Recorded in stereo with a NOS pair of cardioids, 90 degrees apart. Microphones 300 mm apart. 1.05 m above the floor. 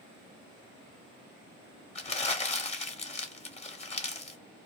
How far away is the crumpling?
About 0.7 m.